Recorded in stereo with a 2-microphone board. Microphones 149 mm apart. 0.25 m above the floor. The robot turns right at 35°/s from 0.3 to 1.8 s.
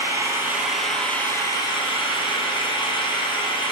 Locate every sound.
0.0 s an engine running: 20° right, 2.5 m; by 3.7 s 35° left, 2.5 m